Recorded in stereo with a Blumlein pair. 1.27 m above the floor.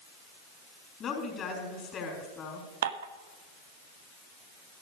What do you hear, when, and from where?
1.0 s a woman speaking: 25° left, 4 m
2.8 s dishes clattering: 60° right, 1.0 m